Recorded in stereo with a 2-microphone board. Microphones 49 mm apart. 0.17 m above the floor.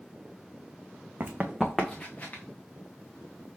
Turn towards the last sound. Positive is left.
turn(degrees=35)  # may be behind; listen again after turning